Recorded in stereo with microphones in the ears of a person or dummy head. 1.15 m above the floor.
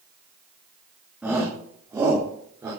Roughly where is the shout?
Centre.